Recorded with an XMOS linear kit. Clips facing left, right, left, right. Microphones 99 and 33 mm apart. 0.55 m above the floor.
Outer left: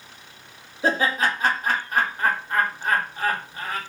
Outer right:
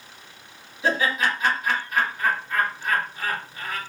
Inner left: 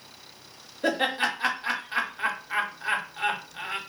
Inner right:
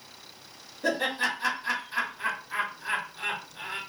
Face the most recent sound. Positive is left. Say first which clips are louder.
# outer left 1 dB, inner left 2 dB
turn(degrees=40)  # may be behind; listen again after turning